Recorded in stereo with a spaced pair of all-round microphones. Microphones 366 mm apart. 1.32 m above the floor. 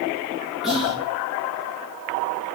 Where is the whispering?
Centre (ahead or behind), 4.5 m.